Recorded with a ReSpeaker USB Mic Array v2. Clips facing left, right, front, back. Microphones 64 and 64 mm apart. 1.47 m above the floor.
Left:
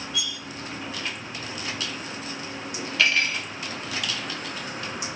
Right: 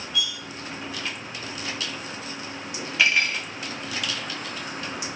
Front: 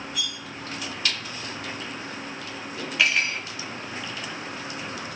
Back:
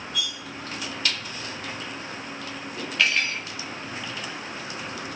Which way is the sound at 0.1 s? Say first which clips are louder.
Right 5 dB, back 4 dB; 20° right.